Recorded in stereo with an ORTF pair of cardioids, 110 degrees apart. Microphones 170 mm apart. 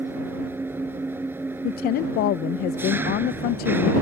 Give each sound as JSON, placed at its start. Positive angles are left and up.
{"t": 0.0, "sound": "an engine running", "azimuth_deg": -10}
{"t": 1.6, "sound": "a woman speaking", "azimuth_deg": 70}